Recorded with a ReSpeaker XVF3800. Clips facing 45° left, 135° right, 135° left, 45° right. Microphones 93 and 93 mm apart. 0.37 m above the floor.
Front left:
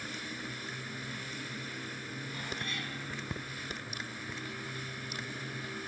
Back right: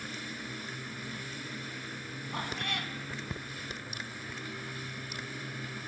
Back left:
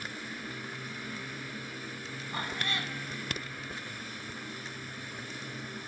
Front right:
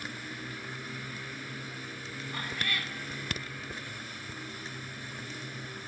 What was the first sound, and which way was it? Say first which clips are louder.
A cat meowing: back right 6 dB, back left 1 dB; 160° right.